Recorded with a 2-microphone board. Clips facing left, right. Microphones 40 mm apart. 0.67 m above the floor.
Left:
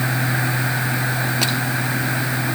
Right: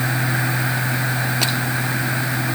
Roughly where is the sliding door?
I don't hear a sliding door.